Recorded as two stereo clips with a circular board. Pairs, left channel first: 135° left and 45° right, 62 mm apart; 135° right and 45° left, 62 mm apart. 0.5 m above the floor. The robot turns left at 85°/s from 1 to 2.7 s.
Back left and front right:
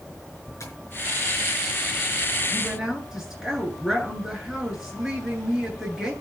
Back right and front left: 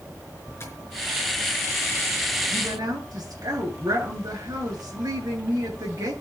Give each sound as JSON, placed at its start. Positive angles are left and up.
{"t": 0.6, "sound": "tapping", "azimuth_deg": 175, "distance_m": 5.0}
{"t": 2.5, "sound": "a woman speaking", "azimuth_deg": 55, "distance_m": 8.5}